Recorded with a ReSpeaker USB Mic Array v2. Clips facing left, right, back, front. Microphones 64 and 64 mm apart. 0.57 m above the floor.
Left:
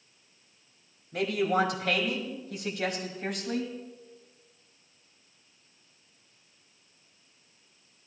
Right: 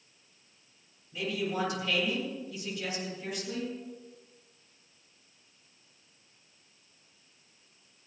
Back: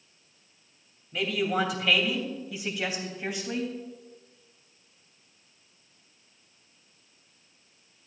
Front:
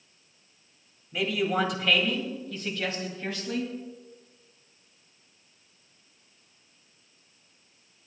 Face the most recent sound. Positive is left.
turn(degrees=110)